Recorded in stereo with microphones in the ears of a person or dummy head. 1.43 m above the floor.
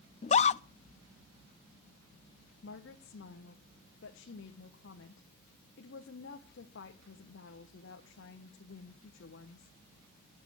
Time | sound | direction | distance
0.2 | a scream | 35° left (ahead or behind) | 0.5 m
2.6 | a woman speaking | 70° left (ahead or behind) | 1.4 m